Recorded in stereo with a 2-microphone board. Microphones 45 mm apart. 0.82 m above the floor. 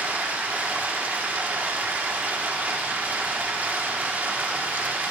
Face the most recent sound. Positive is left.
turn(degrees=-40)  # may be behind; listen again after turning